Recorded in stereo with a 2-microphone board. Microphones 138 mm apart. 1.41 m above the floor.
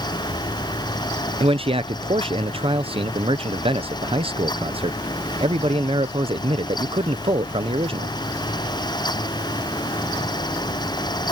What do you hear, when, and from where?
1.4 s a man speaking: 40° right (ahead or behind)